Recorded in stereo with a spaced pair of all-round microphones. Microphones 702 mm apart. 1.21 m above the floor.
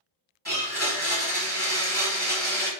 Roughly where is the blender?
Centre.